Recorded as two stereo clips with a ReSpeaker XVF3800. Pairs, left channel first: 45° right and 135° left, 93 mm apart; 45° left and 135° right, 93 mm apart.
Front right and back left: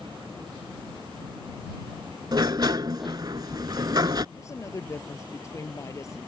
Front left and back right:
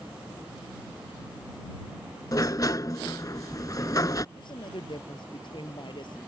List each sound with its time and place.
2.3 s a sliding door: 95° left
4.3 s a woman speaking: 10° left